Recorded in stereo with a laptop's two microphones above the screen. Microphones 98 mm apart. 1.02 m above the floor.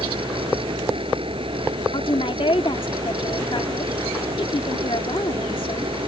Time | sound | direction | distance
0.0 | a fan | 80° right | ?
1.9 | a woman speaking | 70° left (ahead or behind) | ?